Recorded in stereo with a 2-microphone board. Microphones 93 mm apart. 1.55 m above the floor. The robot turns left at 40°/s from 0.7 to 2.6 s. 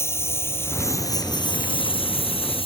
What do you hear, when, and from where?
0.0 s a lawn mower: 30° left (ahead or behind); by 2.7 s 80° left